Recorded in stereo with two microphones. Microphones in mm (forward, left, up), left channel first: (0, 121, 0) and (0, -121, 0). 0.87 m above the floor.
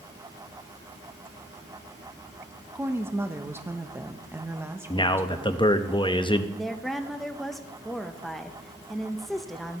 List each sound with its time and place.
2.8 s a woman speaking: 10° right (ahead or behind), 0.8 m
4.9 s a man speaking: 20° left (ahead or behind), 0.7 m
6.5 s a woman speaking: centre (ahead or behind), 0.7 m